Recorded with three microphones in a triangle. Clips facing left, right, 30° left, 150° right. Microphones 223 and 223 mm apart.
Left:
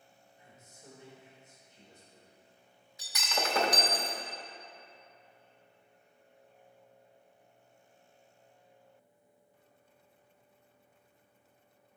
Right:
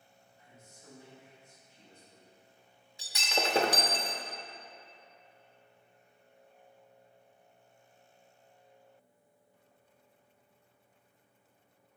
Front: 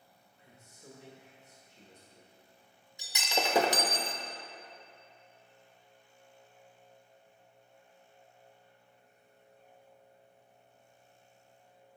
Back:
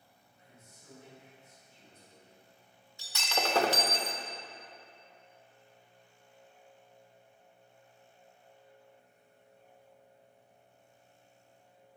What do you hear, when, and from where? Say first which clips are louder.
0.4 s a man speaking: left 1 dB, front 3 dB; 20° left, 1.6 m
3.0 s breaking glass: right 2 dB, front 1 dB; 40° right, 0.7 m